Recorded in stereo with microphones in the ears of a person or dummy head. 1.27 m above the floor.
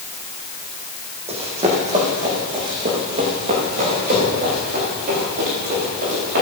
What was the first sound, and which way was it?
Running footsteps, 35° right (ahead or behind).